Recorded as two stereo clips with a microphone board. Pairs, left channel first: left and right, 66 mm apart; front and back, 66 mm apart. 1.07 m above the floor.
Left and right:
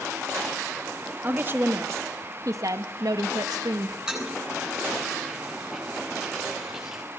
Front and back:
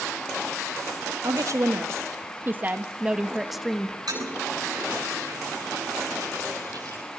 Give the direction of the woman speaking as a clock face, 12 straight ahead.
5 o'clock.